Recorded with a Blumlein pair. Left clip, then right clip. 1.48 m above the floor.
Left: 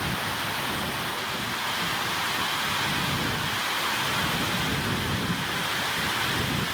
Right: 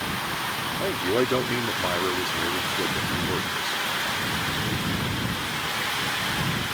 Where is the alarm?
I don't hear an alarm.